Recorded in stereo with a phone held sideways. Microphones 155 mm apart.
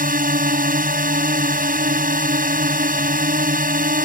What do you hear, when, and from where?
0.0 s a drone: 75° right (ahead or behind)